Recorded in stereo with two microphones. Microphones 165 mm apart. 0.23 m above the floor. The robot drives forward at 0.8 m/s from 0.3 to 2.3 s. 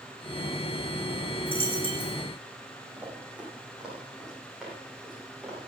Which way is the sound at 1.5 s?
35° right (ahead or behind).